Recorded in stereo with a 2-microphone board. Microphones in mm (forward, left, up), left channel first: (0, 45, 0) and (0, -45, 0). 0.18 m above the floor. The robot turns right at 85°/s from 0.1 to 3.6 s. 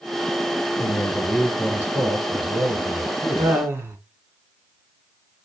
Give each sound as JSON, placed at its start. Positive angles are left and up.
{"t": 0.8, "sound": "a man speaking", "azimuth_deg": 120, "distance_m": 2.0}
{"t": 3.4, "sound": "laughter", "side_deg": -40, "distance_m": 1.6}